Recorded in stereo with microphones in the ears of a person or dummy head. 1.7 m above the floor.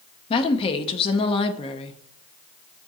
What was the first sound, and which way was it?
A woman speaking, 30° left (ahead or behind).